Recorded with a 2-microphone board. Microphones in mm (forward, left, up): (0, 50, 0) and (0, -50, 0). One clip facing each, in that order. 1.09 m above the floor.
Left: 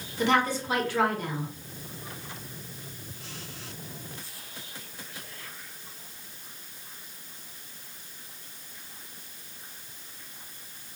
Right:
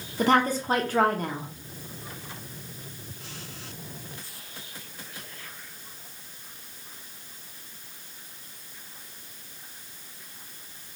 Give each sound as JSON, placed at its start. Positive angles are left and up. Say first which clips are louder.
{"t": 0.2, "sound": "a woman speaking", "louder": "right 3 dB", "side_deg": -40, "distance_m": 1.0}